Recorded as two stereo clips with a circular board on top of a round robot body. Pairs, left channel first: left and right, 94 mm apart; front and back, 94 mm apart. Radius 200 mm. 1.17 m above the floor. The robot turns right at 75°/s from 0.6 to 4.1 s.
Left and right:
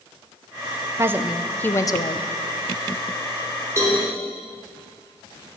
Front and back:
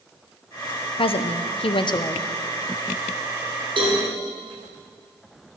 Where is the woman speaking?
30° right, 0.7 m; by 2.2 s 65° left, 0.7 m.